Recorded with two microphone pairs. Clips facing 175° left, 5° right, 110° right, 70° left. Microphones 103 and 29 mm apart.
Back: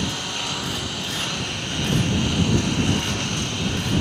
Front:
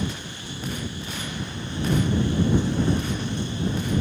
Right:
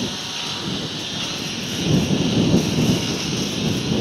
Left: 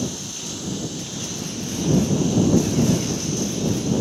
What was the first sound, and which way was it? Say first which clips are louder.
A lawn mower: back 3 dB, right 4 dB; 160° right.